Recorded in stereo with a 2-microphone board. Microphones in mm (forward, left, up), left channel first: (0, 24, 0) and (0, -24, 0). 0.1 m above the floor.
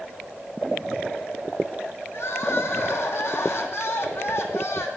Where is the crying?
65° left (ahead or behind), 1.3 m.